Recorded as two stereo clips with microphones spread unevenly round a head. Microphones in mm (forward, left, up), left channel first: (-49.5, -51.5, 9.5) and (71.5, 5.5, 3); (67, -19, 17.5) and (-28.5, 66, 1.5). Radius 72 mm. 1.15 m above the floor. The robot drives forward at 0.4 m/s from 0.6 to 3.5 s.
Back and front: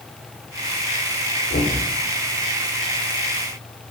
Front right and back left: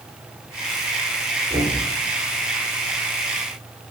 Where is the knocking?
170° right, 3 m.